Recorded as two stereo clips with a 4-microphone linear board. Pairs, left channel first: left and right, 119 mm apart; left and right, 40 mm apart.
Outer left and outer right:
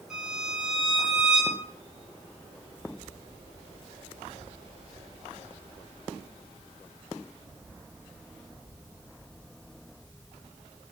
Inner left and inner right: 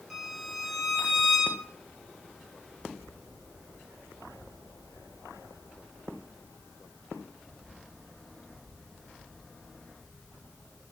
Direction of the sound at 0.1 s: 5° right (ahead or behind).